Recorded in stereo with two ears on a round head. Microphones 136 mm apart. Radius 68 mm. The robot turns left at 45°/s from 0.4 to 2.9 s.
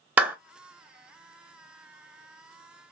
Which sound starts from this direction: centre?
A clap, at 0.2 s.